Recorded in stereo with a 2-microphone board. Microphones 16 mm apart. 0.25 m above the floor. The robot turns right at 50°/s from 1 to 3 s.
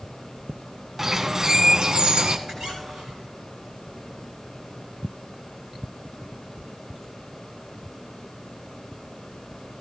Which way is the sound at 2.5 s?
50° right (ahead or behind).